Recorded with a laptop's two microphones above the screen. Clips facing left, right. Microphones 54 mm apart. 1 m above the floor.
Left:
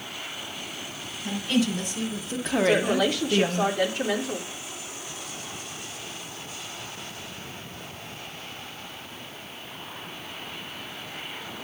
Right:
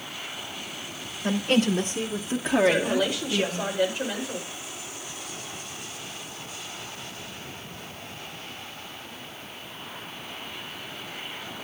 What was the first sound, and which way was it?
A woman speaking, 45° right (ahead or behind).